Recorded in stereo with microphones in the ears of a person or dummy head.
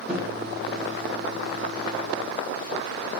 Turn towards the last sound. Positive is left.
turn(degrees=-5)  # may be behind; listen again after turning